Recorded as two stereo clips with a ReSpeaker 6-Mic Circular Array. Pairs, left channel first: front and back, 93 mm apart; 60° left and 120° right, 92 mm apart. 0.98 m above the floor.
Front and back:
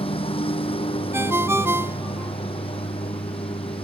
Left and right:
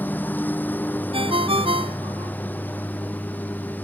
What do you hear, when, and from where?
0.0 s a lawn mower: 10° right
1.1 s a ringtone: 115° right